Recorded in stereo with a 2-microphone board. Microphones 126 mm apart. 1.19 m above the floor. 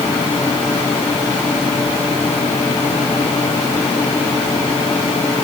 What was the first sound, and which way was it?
Only background noise.